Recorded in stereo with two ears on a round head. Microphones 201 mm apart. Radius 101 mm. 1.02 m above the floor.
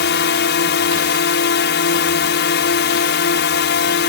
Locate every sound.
0.0 s a drone: 55° left (ahead or behind)